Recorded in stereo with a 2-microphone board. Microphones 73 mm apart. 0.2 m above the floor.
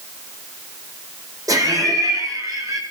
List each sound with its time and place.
1.5 s laughter: 55° right (ahead or behind), 8 m